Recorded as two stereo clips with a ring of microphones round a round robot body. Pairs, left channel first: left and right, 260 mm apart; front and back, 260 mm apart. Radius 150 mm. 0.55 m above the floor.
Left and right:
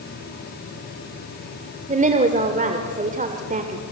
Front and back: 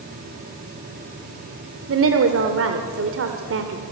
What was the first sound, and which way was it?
A woman speaking, 150° right.